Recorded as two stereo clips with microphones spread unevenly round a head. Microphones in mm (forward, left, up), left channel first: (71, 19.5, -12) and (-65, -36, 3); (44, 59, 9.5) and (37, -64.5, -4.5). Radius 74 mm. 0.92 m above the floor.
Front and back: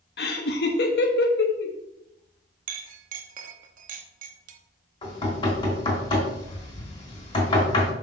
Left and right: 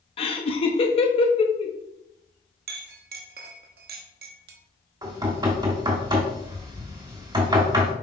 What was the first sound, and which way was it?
Laughter, 40° left.